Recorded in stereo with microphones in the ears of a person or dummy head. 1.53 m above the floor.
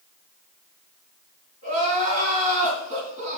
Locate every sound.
1.6 s crying: 40° right (ahead or behind), 3 m